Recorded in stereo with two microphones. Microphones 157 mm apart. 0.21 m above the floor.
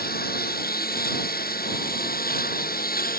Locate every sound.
0.0 s a lawn mower: 75° left (ahead or behind); by 3.2 s 70° left (ahead or behind)